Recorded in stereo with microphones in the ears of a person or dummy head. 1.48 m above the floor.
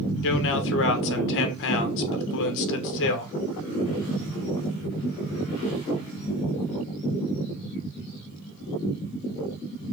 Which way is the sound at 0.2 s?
70° left (ahead or behind).